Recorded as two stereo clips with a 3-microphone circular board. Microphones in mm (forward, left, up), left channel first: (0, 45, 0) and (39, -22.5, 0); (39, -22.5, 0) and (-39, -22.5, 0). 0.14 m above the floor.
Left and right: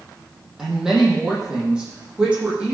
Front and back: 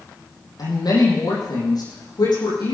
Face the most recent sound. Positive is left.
turn(degrees=15)